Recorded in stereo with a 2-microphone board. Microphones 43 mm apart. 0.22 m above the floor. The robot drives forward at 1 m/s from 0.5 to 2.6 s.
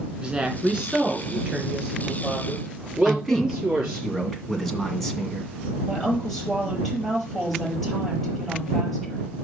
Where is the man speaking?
5° left (ahead or behind), 1.9 m.